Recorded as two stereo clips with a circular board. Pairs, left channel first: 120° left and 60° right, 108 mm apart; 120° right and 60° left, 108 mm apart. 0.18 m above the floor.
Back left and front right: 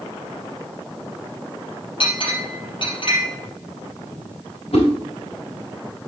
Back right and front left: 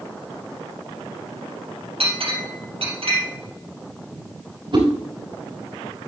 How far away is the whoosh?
About 6 m.